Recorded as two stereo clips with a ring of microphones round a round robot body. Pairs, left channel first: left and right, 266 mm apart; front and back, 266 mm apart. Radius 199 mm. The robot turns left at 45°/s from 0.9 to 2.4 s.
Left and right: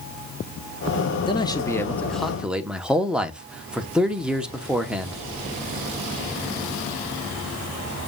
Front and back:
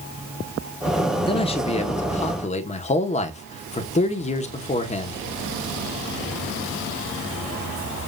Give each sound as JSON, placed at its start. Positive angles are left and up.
{"t": 1.3, "sound": "a man speaking", "azimuth_deg": 45, "distance_m": 0.9}